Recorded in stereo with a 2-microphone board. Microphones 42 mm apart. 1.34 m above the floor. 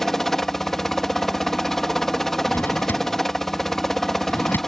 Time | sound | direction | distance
0.0 | a helicopter | 10° left (ahead or behind) | ?
2.5 | a drawer | 55° left (ahead or behind) | ?